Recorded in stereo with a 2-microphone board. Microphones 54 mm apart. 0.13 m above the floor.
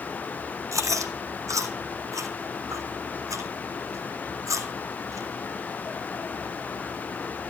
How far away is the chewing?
About 2 m.